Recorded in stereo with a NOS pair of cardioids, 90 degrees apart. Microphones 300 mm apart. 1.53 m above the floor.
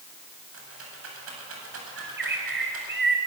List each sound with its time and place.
0.5 s a rattle: 45° right, 8.5 m
2.0 s a bird: 35° right, 6 m